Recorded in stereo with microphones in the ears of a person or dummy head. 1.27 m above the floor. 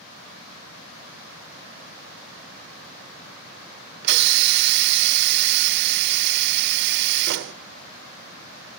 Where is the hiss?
55° right (ahead or behind), 0.5 m.